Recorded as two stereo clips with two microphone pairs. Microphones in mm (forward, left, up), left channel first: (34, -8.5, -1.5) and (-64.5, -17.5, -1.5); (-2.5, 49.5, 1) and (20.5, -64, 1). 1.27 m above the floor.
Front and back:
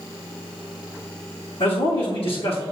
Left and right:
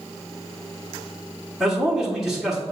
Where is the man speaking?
10° left, 1.1 m.